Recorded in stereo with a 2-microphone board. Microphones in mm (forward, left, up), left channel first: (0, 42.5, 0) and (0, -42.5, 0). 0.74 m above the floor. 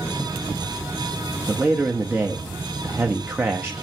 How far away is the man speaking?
About 0.8 m.